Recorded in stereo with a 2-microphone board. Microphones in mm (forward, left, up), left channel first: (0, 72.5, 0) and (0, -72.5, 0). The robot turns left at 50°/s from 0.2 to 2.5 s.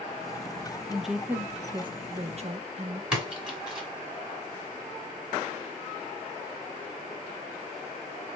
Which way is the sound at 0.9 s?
5° left.